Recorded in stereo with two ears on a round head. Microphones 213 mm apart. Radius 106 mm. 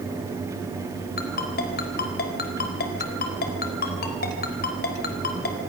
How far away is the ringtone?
About 4 m.